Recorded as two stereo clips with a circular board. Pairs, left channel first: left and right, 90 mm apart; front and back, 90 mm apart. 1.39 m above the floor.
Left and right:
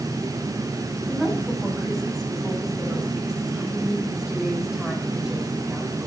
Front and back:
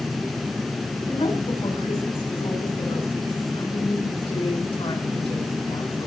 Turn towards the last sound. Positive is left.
turn(degrees=-10)